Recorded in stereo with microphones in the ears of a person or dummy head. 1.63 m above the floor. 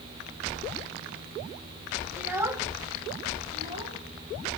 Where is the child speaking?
10° right (ahead or behind), 1.4 m; by 4.6 s 45° right (ahead or behind), 3.5 m.